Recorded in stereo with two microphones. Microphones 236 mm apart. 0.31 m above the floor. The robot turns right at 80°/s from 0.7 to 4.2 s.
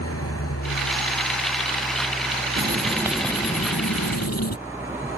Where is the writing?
50° right; by 4.6 s 80° left.